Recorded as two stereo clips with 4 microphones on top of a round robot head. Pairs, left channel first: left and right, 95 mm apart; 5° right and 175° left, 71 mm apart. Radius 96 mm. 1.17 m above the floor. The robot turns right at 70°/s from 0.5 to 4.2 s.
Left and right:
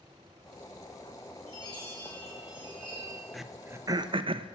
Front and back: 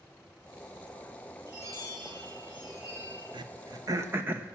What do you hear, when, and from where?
1.5 s a chime: 115° left, 6.5 m; by 3.2 s 120° right, 6.5 m
3.3 s throat clearing: 175° left, 0.8 m; by 4.5 s 120° right, 0.8 m